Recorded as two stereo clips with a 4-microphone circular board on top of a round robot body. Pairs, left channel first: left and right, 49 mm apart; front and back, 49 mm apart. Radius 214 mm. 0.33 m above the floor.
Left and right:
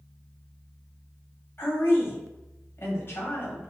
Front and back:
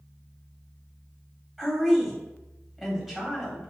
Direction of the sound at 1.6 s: 95° left.